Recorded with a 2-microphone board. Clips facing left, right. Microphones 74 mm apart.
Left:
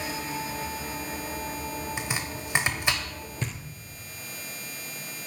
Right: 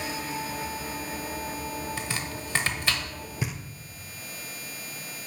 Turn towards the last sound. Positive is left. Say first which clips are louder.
# right 2 dB
turn(degrees=-10)  # may be behind; listen again after turning